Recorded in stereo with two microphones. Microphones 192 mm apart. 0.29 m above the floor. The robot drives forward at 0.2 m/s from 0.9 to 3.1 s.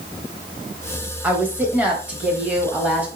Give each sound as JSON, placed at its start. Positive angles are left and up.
{"t": 1.2, "sound": "a woman speaking", "side_deg": -10, "distance_m": 1.1}